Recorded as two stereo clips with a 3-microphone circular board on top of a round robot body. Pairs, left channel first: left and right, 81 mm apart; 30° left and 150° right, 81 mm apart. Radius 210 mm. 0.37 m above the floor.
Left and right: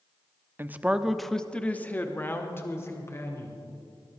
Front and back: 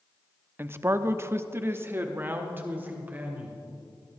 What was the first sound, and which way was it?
A man speaking, 120° right.